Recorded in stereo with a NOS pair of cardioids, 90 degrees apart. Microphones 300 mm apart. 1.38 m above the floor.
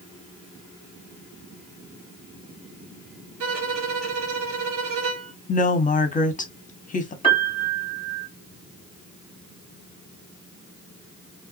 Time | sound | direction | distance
3.4 | a violin | 70° right | 1.0 m
5.5 | a woman speaking | 25° left | 0.9 m
7.2 | a piano | 15° left | 1.0 m